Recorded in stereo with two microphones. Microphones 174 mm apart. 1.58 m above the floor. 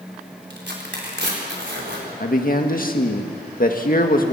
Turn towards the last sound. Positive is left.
turn(degrees=55)  # may be behind; listen again after turning